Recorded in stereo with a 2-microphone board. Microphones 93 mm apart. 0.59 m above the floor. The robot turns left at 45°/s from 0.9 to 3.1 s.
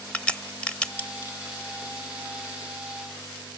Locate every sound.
0.1 s a crack: 15° left (ahead or behind), 0.8 m; by 1.3 s 35° left (ahead or behind), 0.8 m